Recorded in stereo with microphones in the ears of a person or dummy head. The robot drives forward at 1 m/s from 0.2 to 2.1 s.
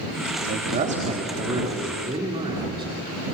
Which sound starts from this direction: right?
A man speaking, at 0.5 s.